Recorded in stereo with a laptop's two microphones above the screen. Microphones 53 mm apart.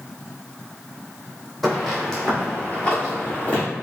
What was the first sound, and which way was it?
Footsteps, centre (ahead or behind).